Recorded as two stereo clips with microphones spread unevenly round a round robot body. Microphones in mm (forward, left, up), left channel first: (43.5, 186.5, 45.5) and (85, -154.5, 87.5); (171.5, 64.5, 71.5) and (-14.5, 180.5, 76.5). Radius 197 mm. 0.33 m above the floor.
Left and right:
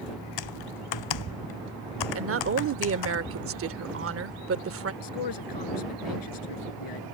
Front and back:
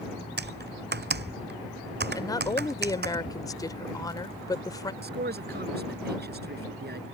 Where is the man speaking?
110° left.